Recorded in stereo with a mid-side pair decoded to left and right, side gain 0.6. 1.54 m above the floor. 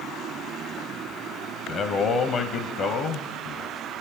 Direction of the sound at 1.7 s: 50° left.